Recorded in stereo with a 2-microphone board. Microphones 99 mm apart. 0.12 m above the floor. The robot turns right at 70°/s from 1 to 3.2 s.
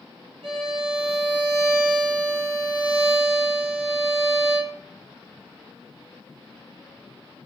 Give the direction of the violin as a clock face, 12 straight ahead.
2 o'clock.